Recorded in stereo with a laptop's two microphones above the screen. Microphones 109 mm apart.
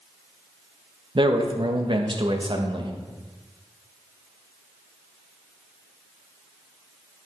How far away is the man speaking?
About 1.1 m.